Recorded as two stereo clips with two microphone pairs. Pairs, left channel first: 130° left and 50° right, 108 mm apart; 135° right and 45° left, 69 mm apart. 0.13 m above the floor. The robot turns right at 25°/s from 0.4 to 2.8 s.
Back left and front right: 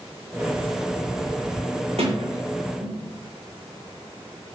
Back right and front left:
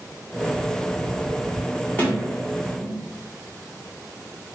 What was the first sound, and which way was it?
A sliding door, 75° right.